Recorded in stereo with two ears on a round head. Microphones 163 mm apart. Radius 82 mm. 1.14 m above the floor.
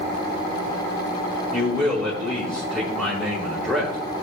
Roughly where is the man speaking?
Centre.